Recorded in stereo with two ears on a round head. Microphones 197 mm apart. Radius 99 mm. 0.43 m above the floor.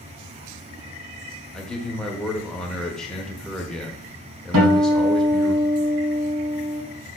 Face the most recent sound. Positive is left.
turn(degrees=-60)  # may be behind; listen again after turning